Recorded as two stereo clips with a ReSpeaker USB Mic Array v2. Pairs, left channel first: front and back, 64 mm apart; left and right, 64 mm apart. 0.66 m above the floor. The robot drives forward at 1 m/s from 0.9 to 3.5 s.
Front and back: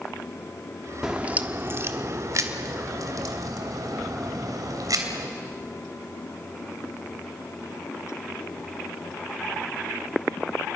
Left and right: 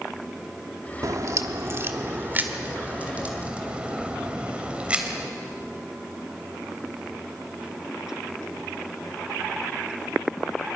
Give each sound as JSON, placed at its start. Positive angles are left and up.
{"t": 1.0, "sound": "a crack", "azimuth_deg": -100, "distance_m": 1.0}